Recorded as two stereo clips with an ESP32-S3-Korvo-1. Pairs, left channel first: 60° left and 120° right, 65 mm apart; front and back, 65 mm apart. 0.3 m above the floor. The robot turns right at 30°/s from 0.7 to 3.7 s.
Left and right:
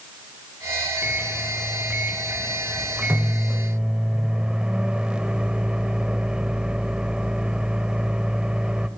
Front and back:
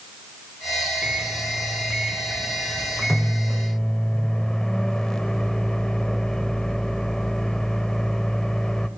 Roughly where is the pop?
I don't hear a pop.